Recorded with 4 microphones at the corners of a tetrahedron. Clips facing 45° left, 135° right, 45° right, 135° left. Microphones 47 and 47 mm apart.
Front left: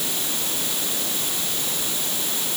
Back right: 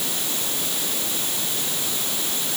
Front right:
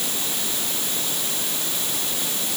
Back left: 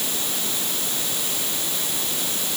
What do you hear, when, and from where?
Only background noise.